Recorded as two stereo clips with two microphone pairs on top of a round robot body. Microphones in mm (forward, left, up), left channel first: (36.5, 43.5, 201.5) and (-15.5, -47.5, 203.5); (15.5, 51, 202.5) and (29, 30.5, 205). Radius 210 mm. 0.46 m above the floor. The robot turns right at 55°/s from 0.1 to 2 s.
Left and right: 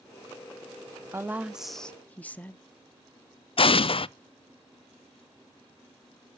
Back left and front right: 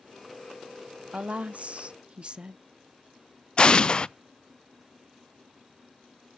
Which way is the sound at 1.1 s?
60° right.